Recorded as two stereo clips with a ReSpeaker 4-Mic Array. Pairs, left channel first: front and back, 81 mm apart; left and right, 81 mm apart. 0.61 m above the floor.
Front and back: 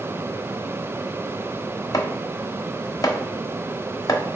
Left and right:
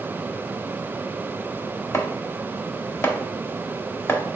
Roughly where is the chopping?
Ahead left.